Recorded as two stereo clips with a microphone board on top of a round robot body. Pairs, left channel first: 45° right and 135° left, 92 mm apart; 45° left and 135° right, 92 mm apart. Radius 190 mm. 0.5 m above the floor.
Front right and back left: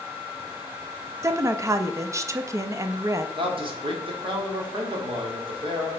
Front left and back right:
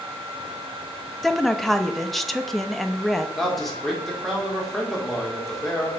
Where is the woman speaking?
130° left, 0.7 m.